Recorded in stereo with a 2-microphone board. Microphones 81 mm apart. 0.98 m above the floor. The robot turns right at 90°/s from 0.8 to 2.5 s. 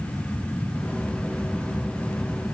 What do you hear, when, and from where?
Only background noise.